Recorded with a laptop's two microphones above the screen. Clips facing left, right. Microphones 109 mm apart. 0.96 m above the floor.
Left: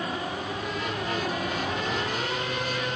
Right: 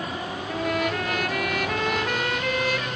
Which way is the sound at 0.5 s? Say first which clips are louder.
Right 6 dB; 70° right (ahead or behind).